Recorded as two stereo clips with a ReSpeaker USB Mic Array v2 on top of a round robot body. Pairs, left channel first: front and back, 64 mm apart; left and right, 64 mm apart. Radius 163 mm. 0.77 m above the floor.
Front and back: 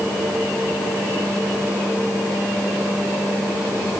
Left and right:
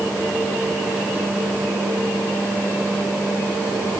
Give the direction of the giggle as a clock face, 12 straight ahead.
I don't hear a giggle.